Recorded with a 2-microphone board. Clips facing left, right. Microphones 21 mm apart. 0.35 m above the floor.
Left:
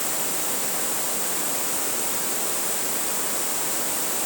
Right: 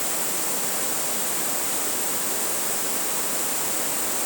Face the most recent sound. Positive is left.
No sound to turn to.